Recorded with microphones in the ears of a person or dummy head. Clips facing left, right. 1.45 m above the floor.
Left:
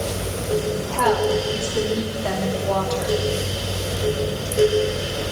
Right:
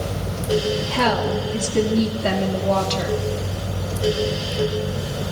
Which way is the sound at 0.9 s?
35° right (ahead or behind).